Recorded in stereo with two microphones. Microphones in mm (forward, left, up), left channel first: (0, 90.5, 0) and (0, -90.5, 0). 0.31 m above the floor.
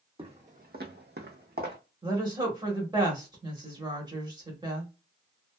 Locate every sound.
0.2 s footsteps: 30° right (ahead or behind), 0.8 m; by 1.8 s 55° right (ahead or behind), 1.1 m
2.0 s a woman speaking: 25° right (ahead or behind), 1.1 m